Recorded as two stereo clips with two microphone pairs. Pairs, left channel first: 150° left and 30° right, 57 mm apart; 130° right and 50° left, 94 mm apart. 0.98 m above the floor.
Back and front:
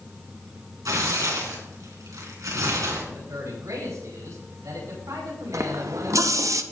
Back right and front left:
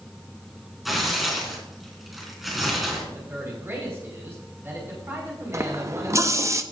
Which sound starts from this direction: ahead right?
Tearing paper, at 0.8 s.